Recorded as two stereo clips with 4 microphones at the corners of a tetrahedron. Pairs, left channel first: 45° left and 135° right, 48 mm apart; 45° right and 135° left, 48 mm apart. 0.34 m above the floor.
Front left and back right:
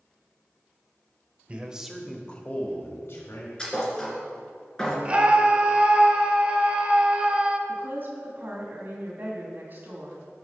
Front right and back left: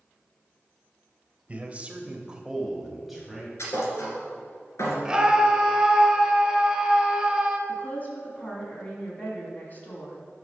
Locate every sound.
1.5 s a man speaking: 175° left, 1.1 m; by 3.5 s 45° left, 1.8 m
3.6 s a thud: 30° right, 2 m
5.0 s a scream: 170° right, 1.1 m
7.7 s a woman speaking: 95° right, 2.5 m